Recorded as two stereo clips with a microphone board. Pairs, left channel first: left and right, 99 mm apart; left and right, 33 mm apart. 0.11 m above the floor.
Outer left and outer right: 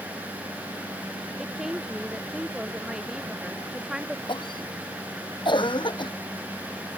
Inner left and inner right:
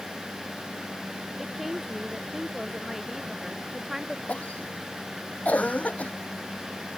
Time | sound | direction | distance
1.4 | a woman speaking | 5° right (ahead or behind) | ?
4.3 | a cough | 50° left (ahead or behind) | ?